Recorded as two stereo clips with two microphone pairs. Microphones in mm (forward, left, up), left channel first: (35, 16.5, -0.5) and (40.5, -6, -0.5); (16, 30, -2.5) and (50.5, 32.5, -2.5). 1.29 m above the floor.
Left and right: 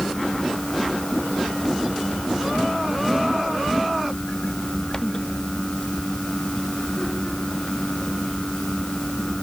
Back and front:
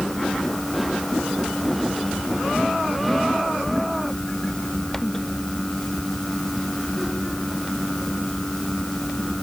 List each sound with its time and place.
Only background noise.